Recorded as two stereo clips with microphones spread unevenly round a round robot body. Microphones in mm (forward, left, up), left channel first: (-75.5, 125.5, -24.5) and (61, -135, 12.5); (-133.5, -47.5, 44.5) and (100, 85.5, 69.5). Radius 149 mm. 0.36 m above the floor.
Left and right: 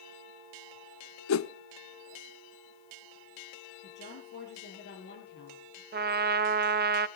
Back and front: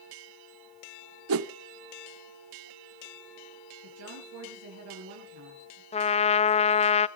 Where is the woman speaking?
60° left, 6.5 m.